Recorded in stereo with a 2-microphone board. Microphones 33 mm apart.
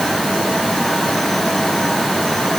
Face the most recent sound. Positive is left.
No sound to turn to.